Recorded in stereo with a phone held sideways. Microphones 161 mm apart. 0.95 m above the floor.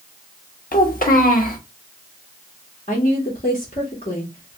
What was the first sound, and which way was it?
A child speaking, 60° left (ahead or behind).